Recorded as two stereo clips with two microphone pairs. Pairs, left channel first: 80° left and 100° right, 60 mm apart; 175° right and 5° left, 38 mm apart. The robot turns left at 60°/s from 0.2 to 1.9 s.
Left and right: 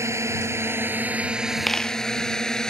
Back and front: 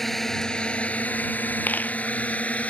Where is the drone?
95° right; by 2.7 s 155° left.